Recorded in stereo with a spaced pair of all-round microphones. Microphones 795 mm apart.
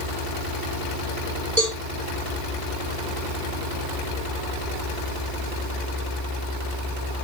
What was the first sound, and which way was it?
A cowbell, 60° right (ahead or behind).